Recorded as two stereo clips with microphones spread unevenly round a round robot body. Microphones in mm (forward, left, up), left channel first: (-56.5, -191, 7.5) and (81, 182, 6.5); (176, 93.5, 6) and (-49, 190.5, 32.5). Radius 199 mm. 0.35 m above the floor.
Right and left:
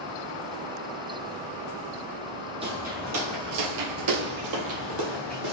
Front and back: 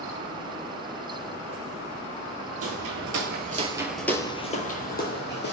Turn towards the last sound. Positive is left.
turn(degrees=25)